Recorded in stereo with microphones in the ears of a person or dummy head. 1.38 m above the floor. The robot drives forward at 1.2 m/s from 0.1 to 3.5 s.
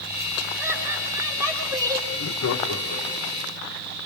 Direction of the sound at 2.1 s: 60° left (ahead or behind).